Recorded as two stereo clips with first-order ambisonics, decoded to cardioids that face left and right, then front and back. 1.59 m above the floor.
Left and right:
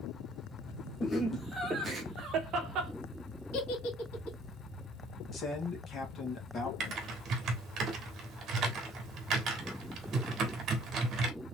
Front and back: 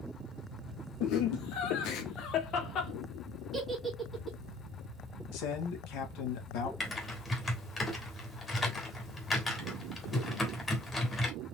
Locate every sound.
1.0 s laughter: 15° left, 0.9 m; by 2.9 s 55° right, 1.3 m
3.5 s a giggle: 100° left, 2.5 m
5.3 s a man speaking: 20° left, 2 m
6.8 s typing on a keyboard: 65° right, 1.4 m